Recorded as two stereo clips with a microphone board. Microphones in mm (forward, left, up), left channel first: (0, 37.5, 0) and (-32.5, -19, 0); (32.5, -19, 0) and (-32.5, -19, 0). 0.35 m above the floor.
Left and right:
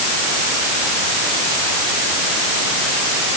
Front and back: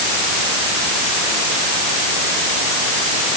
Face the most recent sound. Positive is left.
No sound to turn to.